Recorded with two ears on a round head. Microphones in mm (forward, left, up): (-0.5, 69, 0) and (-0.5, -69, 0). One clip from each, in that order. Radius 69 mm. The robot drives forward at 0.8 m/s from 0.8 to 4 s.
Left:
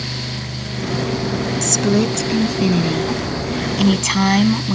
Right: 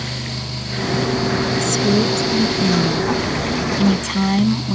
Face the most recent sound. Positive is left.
turn(degrees=40)  # may be behind; listen again after turning